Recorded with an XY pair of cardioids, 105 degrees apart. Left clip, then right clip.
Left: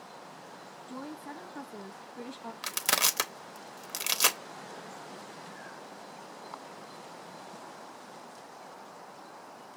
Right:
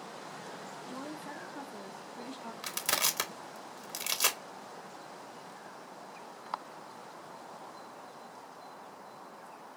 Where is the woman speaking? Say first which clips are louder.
Left 2 dB; 20° left, 0.8 m.